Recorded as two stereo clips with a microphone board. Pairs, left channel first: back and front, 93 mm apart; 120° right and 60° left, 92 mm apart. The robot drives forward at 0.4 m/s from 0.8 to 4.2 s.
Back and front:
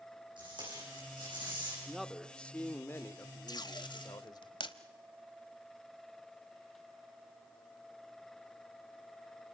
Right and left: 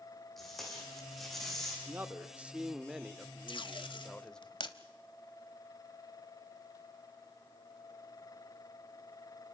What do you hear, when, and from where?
0.4 s tape being pulled: 35° right, 9.5 m
1.9 s a man speaking: 75° left, 0.8 m; by 4.5 s 160° left, 1.2 m
3.5 s tape being pulled: 140° right, 0.8 m; by 4.8 s 150° right, 1.0 m